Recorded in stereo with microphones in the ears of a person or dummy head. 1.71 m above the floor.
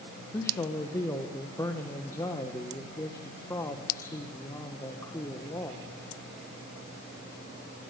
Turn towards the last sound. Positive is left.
turn(degrees=20)  # may be behind; listen again after turning